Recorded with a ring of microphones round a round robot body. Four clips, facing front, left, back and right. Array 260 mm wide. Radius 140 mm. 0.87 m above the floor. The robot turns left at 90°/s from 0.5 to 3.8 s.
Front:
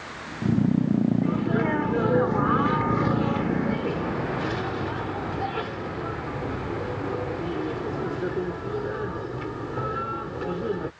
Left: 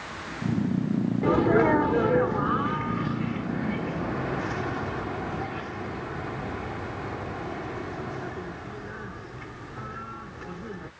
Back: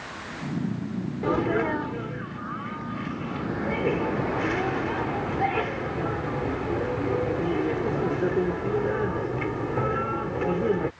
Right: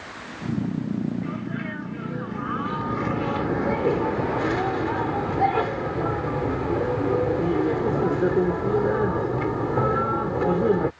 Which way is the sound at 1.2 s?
130° left.